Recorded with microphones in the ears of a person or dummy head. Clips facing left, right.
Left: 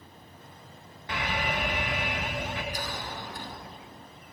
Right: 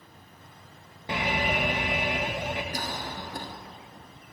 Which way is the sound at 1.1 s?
25° right (ahead or behind).